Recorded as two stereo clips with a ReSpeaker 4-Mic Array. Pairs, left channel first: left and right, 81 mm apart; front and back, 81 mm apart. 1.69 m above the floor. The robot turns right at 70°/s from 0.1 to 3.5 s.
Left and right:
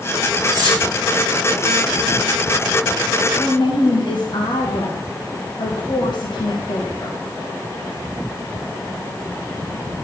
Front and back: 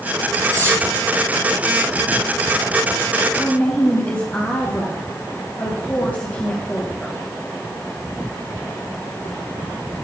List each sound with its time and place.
0.5 s cutlery clinking: 130° right, 3 m; by 0.8 s 115° right, 3 m
3.3 s a woman speaking: 60° left, 1.9 m; by 7.2 s 70° left, 1.9 m